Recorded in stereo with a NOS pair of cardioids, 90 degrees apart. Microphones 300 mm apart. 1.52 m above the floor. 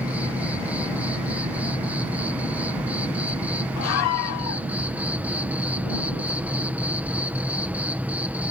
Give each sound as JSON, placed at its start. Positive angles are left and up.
{"t": 0.0, "sound": "an insect", "azimuth_deg": -5}
{"t": 3.8, "sound": "a scream", "azimuth_deg": 60}